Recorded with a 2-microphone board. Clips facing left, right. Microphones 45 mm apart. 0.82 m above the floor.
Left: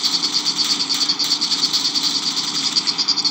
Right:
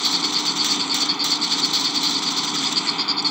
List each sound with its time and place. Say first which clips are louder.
0.0 s an insect: even; 15° right (ahead or behind)